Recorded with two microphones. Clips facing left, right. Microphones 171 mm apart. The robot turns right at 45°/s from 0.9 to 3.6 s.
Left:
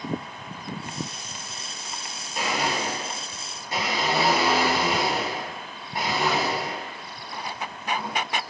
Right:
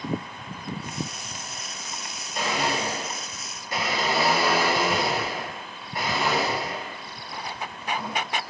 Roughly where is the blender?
Centre.